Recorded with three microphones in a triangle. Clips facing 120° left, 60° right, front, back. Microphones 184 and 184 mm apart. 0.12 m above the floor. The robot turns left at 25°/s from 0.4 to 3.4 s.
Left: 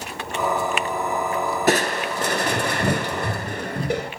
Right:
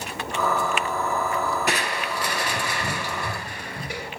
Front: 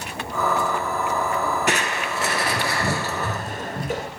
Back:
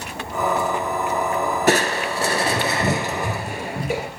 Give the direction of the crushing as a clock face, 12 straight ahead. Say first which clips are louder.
Left 7 dB, back 6 dB; 7 o'clock.